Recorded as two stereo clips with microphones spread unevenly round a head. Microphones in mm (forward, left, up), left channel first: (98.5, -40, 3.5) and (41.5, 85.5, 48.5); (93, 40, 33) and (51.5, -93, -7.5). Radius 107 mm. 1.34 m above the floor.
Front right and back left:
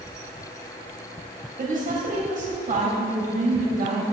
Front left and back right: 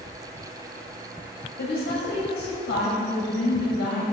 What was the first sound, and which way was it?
A woman speaking, 85° left.